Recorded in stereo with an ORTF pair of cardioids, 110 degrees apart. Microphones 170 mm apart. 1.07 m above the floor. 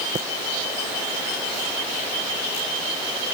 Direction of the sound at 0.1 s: 30° right.